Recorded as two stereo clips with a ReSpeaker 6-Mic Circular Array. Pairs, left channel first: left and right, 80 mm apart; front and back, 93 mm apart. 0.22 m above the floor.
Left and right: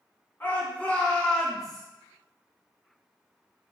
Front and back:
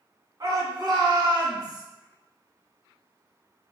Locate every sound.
0.4 s a shout: 150° left, 1.9 m; by 1.8 s 175° right, 1.7 m